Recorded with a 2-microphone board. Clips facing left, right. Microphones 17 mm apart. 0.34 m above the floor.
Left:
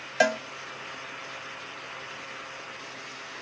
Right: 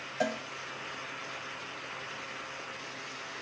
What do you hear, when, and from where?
0.2 s a cowbell: 75° left (ahead or behind), 0.5 m